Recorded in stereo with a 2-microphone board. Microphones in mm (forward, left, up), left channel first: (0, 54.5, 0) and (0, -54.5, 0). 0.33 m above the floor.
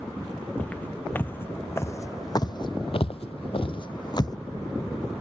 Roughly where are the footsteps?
Centre.